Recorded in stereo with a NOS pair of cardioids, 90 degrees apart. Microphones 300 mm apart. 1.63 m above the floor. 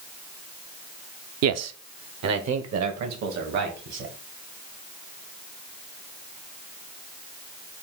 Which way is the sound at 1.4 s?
60° right.